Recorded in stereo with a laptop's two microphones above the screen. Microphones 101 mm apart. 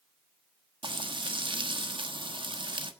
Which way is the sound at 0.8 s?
55° right (ahead or behind).